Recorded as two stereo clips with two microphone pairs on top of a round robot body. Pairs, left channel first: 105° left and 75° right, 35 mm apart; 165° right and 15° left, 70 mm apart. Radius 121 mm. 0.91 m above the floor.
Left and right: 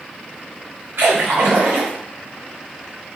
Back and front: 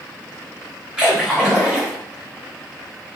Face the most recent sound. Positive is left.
turn(degrees=-65)